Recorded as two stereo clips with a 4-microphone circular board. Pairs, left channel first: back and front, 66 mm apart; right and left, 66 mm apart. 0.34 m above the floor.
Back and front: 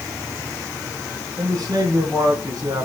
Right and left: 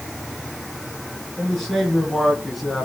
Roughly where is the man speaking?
Ahead.